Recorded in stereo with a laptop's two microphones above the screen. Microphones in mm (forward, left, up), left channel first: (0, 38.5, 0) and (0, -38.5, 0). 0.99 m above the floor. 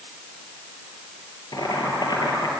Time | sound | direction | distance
1.5 | boiling | 75° left (ahead or behind) | 3.5 m